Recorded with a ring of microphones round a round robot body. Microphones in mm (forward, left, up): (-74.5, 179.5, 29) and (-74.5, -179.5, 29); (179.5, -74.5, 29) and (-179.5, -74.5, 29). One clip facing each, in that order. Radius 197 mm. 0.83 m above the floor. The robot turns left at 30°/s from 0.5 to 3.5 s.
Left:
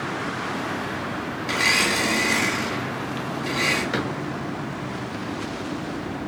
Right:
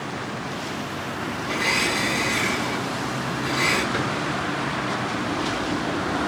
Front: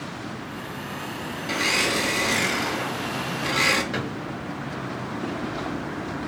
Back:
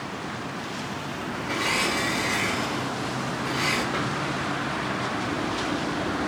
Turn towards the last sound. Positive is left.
turn(degrees=65)